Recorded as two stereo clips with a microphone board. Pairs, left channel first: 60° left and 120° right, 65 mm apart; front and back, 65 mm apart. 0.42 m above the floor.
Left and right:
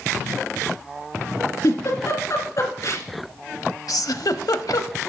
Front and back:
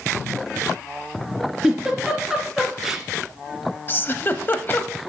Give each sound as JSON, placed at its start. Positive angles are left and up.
{"t": 1.6, "sound": "a giggle", "azimuth_deg": 95, "distance_m": 2.0}
{"t": 3.9, "sound": "a giggle", "azimuth_deg": 50, "distance_m": 0.6}